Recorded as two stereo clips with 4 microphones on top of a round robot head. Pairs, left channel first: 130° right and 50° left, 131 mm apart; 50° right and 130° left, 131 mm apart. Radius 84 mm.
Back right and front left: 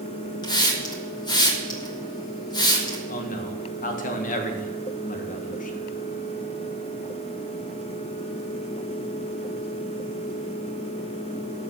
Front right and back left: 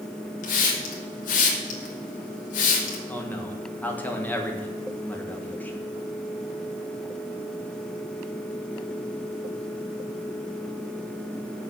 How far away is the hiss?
About 2 m.